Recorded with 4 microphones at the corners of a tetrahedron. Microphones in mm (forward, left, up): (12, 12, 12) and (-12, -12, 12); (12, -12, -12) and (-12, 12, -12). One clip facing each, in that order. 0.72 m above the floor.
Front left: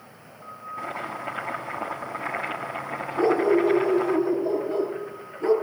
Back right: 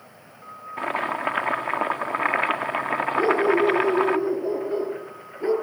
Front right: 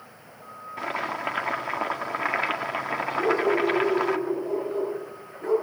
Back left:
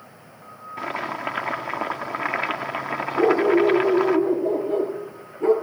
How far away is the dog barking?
About 5.5 m.